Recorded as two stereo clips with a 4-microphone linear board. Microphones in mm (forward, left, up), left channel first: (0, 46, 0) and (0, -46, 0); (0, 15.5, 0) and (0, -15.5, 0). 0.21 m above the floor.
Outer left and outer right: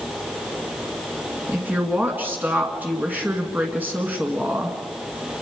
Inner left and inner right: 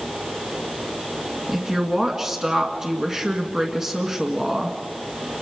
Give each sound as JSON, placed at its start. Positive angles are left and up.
{"t": 1.5, "sound": "a woman speaking", "side_deg": -20, "distance_m": 2.0}